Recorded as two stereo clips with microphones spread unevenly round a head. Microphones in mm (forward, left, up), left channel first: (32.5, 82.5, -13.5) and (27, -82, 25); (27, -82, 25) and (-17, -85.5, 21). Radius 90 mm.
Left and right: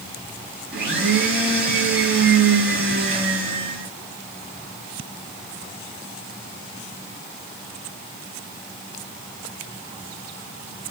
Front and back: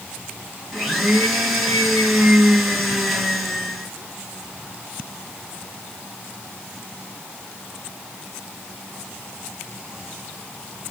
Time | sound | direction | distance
0.7 | a blender | 80° right | 7.5 m